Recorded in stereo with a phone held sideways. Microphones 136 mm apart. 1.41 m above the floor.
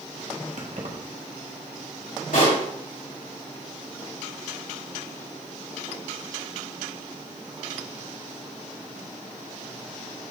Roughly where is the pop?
Left.